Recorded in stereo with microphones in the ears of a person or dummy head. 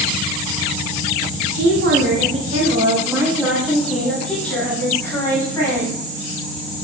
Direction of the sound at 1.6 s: 60° right (ahead or behind).